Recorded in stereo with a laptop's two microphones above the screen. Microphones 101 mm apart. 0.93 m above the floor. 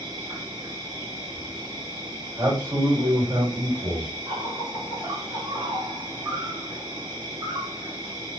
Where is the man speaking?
30° right (ahead or behind), 1.5 m.